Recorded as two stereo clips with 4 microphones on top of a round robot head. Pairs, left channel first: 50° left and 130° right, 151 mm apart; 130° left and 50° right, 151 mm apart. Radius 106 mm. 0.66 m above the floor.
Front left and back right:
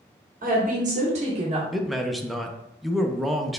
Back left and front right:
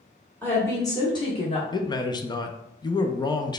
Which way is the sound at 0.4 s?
155° right.